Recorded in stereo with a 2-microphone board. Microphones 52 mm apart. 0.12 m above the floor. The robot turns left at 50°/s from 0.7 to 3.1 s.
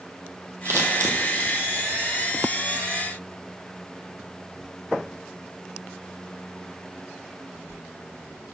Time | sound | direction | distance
0.7 | scissors | 65° right (ahead or behind) | 1.2 m